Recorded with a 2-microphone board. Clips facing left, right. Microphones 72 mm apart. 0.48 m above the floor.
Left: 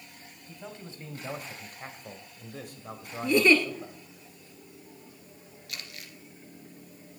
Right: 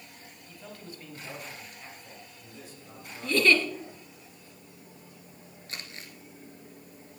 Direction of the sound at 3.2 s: 15° left (ahead or behind).